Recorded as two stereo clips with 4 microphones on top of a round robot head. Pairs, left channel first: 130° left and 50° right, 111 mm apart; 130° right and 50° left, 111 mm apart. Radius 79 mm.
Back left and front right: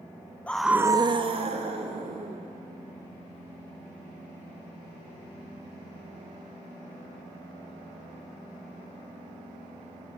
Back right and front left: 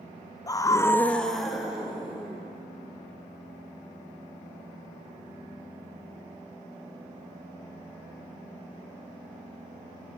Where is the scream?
160° right, 0.5 m; by 2.5 s 30° right, 1.6 m.